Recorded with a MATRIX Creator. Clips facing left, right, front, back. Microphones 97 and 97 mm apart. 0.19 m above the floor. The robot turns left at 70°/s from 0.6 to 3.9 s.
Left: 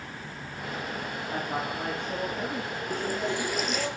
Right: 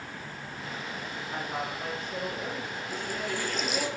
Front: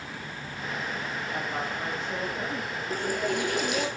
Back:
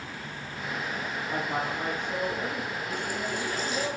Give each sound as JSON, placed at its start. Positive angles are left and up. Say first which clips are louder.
{"t": 1.3, "sound": "a woman speaking", "louder": "left 2 dB, back 3 dB", "azimuth_deg": 155, "distance_m": 9.0}
{"t": 2.9, "sound": "a running tap", "louder": "left 5 dB, front 7 dB", "azimuth_deg": 50, "distance_m": 2.5}